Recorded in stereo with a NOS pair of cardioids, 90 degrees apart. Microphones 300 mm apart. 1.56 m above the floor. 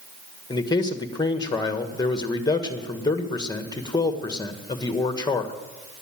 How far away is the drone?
No drone in this recording.